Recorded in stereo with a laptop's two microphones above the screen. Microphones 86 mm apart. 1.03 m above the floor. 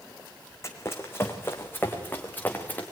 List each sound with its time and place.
0.6 s running footsteps: 35° left (ahead or behind), 3 m; by 2.8 s 20° left (ahead or behind), 4.5 m